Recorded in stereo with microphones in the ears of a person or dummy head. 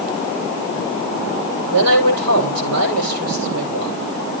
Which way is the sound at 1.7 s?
75° right (ahead or behind).